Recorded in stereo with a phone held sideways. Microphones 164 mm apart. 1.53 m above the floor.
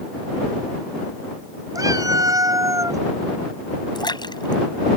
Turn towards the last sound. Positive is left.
turn(degrees=25)  # may be behind; listen again after turning